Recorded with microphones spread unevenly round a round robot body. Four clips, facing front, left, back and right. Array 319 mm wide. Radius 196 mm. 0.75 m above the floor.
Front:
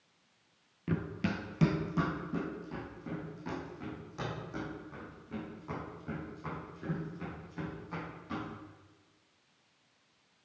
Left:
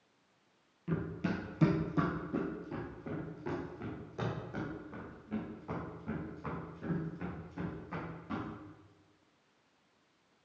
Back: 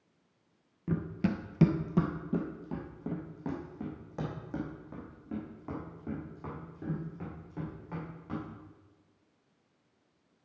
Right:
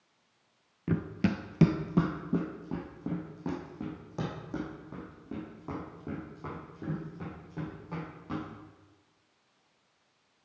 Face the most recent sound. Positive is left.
turn(degrees=-125)